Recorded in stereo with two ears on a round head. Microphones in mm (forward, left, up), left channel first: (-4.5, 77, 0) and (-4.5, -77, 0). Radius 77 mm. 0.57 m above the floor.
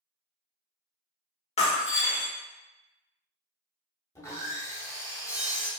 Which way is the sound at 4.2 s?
20° left (ahead or behind).